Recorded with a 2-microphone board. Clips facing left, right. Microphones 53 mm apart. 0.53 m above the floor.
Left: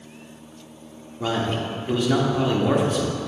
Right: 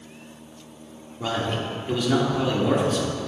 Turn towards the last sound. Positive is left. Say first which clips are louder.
# left 2 dB
turn(degrees=10)  # may be behind; listen again after turning